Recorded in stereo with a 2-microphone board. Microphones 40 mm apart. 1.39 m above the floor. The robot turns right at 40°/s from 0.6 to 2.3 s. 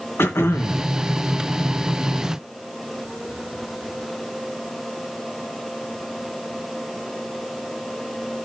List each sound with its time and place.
0.2 s throat clearing: 80° left, 1.5 m; by 0.8 s 70° left (ahead or behind), 1.5 m